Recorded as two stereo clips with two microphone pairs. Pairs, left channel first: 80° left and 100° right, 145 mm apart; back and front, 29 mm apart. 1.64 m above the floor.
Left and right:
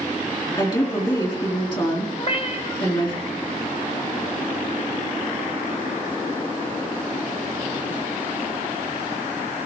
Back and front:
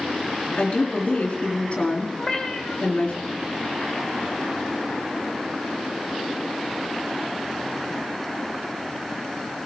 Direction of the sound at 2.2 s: 120° left.